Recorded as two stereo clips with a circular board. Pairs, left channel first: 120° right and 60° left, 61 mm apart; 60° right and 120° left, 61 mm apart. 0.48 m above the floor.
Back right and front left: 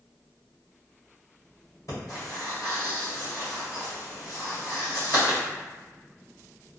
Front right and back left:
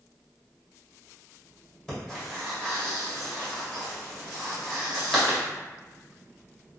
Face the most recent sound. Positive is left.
turn(degrees=-145)